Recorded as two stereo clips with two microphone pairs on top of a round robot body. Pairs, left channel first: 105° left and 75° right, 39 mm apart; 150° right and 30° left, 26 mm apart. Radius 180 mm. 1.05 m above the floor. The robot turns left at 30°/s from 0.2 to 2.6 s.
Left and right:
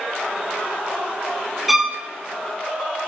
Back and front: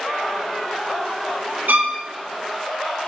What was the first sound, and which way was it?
A violin, 10° left.